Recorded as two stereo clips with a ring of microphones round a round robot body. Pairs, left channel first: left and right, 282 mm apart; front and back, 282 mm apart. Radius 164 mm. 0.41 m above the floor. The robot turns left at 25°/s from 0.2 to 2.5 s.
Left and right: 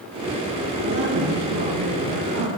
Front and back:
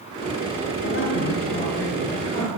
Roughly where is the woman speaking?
Ahead right.